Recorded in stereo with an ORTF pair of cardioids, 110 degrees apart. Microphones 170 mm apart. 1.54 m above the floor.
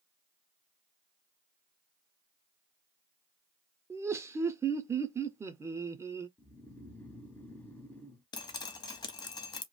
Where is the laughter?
15° right, 0.6 m.